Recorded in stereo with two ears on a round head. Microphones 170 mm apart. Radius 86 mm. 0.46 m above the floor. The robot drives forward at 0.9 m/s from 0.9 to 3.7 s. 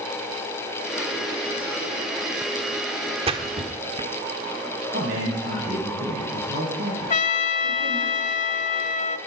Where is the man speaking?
50° right (ahead or behind), 10 m.